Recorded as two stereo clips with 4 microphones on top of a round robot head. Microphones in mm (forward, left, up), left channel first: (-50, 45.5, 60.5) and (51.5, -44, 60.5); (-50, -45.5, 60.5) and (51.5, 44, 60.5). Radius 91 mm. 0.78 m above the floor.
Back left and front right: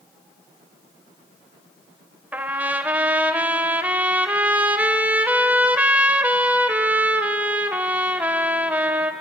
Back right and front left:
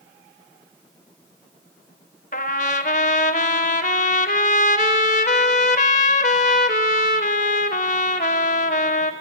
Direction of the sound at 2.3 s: 120° right.